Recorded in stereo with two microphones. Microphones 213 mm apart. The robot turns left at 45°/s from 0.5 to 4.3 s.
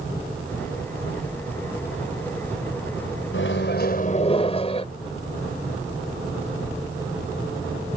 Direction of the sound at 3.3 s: 70° left.